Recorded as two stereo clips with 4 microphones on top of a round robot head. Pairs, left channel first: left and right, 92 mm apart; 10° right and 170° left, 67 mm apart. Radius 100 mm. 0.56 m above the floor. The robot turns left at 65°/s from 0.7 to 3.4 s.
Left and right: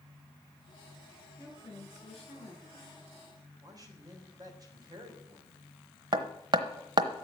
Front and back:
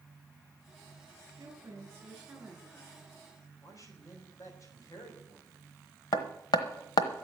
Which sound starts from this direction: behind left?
A woman speaking, at 1.4 s.